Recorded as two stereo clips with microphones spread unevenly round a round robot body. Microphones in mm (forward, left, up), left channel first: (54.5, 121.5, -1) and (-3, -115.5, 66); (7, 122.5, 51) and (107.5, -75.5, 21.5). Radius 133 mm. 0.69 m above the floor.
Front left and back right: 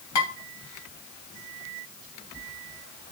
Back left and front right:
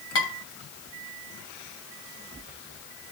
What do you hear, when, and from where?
0.1 s dishes clattering: 90° left, 3 m